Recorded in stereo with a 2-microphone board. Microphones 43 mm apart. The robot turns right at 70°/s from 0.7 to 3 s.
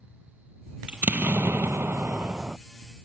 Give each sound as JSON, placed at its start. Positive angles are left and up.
{"t": 0.9, "sound": "an explosion", "azimuth_deg": -145}